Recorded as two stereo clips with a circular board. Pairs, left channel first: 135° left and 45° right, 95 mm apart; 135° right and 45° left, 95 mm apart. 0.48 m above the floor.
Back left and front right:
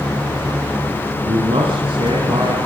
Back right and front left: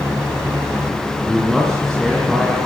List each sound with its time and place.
1.2 s a man speaking: 50° right, 5.5 m; by 2.6 s 45° right, 6.5 m